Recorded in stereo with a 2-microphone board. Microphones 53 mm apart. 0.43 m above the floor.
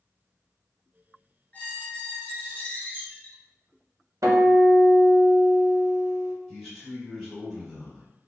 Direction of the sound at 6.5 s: Centre (ahead or behind).